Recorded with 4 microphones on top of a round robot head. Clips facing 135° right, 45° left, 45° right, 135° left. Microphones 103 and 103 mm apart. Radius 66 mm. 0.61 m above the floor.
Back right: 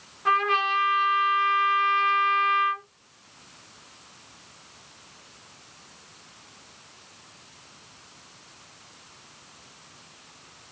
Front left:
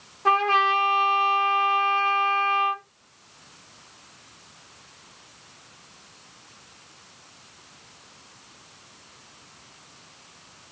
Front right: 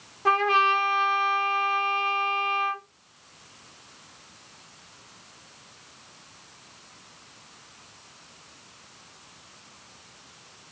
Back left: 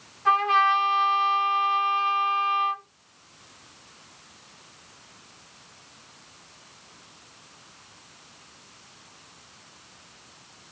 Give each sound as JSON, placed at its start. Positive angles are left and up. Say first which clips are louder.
{"t": 0.2, "sound": "a trumpet", "louder": "front left 3 dB, back left 1 dB", "azimuth_deg": -5, "distance_m": 0.8}